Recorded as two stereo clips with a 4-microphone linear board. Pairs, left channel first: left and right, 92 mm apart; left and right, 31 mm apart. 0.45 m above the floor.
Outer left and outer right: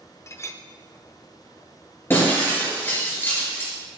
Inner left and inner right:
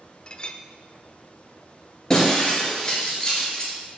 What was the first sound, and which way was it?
A clink, 30° left (ahead or behind).